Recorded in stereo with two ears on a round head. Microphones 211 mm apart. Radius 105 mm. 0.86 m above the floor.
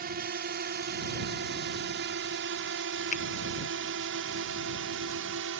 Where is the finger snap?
35° left (ahead or behind).